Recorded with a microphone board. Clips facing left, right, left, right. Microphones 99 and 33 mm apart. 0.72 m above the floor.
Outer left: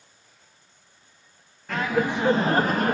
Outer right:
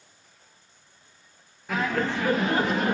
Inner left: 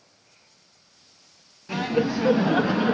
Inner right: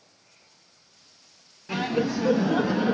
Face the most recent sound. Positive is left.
turn(degrees=50)  # may be behind; listen again after turning